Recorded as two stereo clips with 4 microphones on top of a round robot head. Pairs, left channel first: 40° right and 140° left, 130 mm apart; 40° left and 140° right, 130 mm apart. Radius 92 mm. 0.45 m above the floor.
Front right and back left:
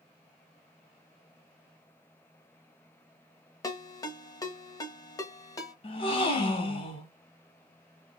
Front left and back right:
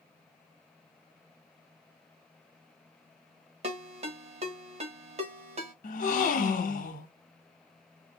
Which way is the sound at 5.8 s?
10° left.